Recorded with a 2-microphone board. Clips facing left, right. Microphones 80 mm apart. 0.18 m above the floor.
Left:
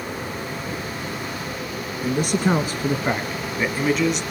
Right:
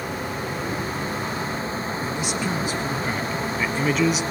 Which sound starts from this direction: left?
A man speaking, at 2.0 s.